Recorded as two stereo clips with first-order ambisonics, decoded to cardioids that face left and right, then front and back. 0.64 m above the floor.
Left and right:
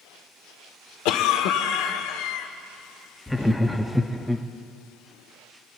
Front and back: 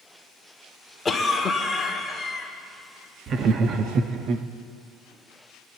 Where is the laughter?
175° left, 0.6 m.